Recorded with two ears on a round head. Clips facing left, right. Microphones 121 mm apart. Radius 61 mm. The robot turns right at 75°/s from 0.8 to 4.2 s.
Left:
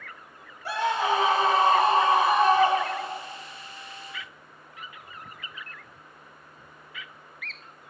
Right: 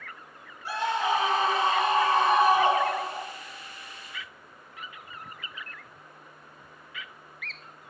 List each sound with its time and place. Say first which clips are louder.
0.7 s a scream: left 2 dB; 60° left, 1.9 m; by 3.2 s 115° right, 1.9 m